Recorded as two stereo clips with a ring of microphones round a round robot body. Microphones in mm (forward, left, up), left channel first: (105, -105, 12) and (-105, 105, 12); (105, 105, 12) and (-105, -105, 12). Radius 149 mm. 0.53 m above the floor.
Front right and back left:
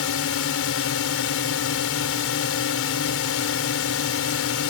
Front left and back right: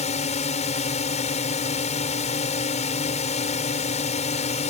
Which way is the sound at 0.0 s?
15° right.